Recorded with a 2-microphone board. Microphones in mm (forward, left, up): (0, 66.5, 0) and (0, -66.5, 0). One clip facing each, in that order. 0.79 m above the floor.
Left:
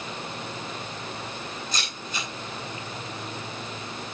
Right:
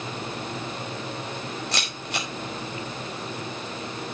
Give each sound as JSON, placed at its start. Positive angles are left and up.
{"t": 1.7, "sound": "a camera shutter", "side_deg": -75, "distance_m": 4.5}